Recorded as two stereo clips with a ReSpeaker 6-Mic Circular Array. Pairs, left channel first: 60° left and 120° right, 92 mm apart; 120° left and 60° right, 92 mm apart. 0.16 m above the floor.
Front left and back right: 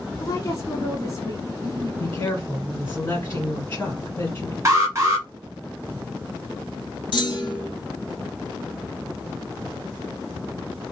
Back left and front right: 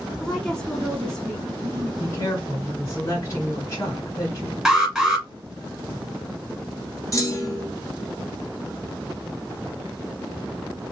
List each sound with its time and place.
0.2 s a woman speaking: 45° left, 1.2 m
2.0 s a woman speaking: 105° left, 1.6 m
4.7 s an alarm: 145° right, 1.1 m
7.1 s a clunk: 75° left, 0.9 m